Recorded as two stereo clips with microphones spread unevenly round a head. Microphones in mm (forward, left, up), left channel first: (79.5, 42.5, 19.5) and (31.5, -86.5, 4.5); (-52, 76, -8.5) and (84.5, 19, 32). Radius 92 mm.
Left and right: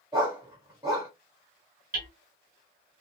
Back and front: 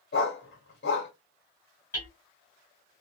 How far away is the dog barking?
About 1.3 m.